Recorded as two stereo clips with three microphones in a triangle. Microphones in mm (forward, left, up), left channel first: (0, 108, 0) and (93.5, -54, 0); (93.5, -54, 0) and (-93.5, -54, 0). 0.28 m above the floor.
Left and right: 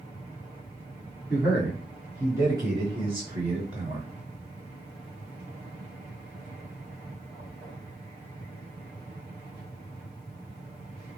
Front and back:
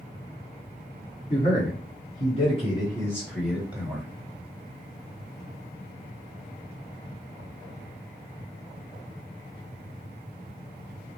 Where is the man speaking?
25° left, 2 m; by 4.1 s 110° right, 1.7 m.